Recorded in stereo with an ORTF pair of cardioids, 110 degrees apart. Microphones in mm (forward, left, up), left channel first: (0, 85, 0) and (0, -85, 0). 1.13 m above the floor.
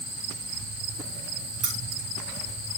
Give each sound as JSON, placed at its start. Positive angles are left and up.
{"t": 1.6, "sound": "keys jangling", "azimuth_deg": -50, "distance_m": 4.5}